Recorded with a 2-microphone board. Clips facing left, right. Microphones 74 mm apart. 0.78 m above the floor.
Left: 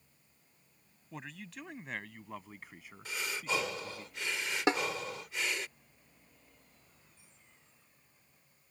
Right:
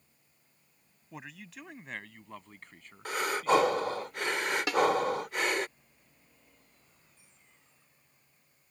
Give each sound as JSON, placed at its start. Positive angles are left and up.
{"t": 1.1, "sound": "a man speaking", "side_deg": -5}
{"t": 3.0, "sound": "breathing", "side_deg": -55}
{"t": 4.7, "sound": "a snare drum", "side_deg": 30}